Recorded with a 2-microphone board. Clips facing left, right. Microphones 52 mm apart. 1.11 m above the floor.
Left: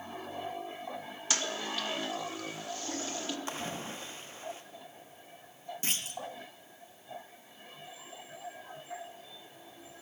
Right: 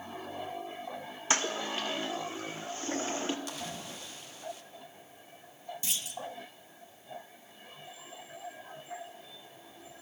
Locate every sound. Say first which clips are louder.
1.3 s a toilet flushing: right 3 dB; 35° right (ahead or behind), 1.0 m
3.5 s a splash: left 3 dB; 35° left (ahead or behind), 1.0 m
5.8 s a clunk: left 3 dB; 45° left (ahead or behind), 0.7 m